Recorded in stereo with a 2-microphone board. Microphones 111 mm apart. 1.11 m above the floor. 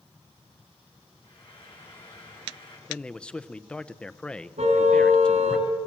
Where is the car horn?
85° right, 5 m.